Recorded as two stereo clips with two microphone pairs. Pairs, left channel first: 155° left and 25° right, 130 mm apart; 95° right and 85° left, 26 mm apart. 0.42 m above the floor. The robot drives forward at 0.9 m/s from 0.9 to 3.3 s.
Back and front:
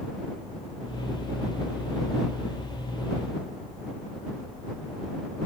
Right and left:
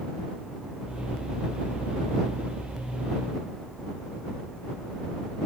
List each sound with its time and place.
Only background noise.